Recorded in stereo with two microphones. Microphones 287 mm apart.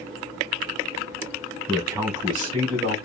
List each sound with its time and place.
1.7 s a man speaking: 5° right (ahead or behind), 2 m; by 3.0 s 15° right (ahead or behind), 1.8 m